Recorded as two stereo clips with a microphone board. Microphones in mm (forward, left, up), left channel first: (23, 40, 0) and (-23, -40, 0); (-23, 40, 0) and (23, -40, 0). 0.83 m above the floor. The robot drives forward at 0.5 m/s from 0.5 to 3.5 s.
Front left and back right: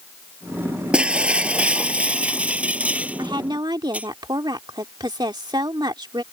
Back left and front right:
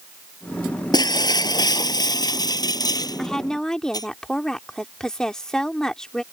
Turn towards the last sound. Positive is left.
turn(degrees=-155)